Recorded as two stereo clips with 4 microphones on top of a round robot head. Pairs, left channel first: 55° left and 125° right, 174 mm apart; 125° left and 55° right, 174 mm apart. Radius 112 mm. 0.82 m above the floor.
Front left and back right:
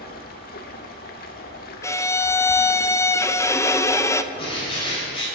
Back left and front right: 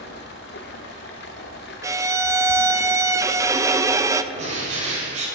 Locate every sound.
0.0 s running water: 95° left, 0.7 m
1.8 s a violin: straight ahead, 0.6 m
4.3 s a bird: 5° right, 3.5 m